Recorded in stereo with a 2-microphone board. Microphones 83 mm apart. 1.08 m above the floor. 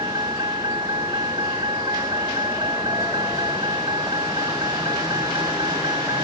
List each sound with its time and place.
0.0 s a vehicle: 65° right (ahead or behind)